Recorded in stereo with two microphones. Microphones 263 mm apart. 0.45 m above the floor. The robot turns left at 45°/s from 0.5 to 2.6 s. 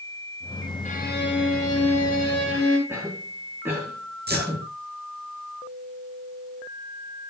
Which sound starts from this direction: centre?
A cough, at 2.9 s.